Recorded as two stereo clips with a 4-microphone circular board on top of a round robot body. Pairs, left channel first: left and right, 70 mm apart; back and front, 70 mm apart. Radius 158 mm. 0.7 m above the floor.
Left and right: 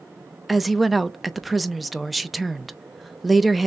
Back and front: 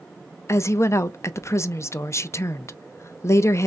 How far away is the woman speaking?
About 0.5 m.